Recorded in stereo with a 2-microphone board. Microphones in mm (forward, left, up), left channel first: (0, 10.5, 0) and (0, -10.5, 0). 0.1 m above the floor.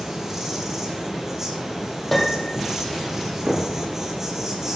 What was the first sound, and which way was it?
An insect, 15° right (ahead or behind).